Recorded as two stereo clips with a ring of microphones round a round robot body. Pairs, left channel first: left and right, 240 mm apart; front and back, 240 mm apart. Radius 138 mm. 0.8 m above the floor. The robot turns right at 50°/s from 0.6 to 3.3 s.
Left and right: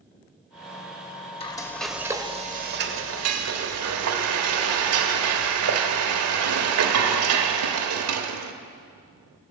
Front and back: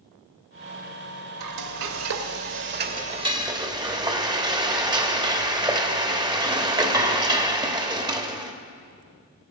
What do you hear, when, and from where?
1.4 s frying: 155° left, 1.0 m; by 8.5 s 110° right, 1.0 m